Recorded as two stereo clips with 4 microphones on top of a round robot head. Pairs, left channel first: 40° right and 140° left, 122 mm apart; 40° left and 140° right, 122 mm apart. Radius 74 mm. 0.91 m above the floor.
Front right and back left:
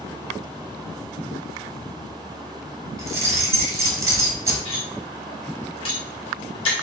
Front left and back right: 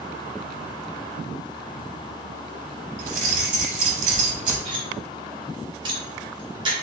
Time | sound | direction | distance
3.0 | keys jangling | 150° right | 1.0 m
4.7 | cutlery clinking | 85° right | 1.3 m